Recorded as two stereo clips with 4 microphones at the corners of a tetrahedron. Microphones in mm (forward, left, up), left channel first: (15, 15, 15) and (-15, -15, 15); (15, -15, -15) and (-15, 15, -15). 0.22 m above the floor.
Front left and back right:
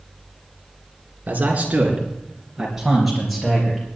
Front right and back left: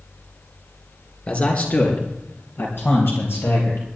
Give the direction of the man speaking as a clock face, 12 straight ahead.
3 o'clock.